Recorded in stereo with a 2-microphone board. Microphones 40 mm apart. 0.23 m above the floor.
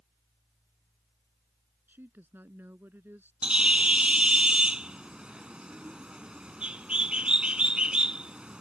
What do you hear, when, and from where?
1.9 s a woman speaking: 65° right (ahead or behind)
3.4 s a bird: 25° right (ahead or behind)